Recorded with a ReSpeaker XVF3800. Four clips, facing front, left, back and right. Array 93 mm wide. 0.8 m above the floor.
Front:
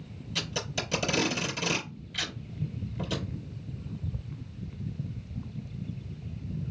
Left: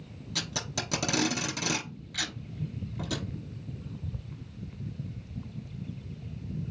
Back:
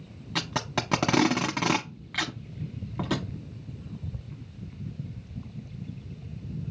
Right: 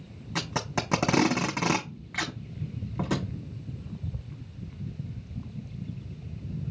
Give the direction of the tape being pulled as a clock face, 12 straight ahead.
5 o'clock.